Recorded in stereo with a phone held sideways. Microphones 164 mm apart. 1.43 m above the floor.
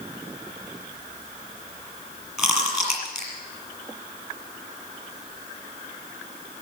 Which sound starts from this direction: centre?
Chewing, at 2.4 s.